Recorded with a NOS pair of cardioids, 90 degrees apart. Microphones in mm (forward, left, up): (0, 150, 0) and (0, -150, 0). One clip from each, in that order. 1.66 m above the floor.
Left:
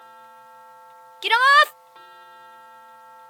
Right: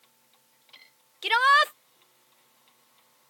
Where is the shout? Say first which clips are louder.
Left 5 dB; 30° left.